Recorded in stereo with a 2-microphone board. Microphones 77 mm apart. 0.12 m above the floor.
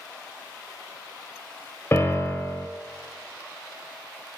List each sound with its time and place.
1.9 s a piano: 35° left (ahead or behind), 1.3 m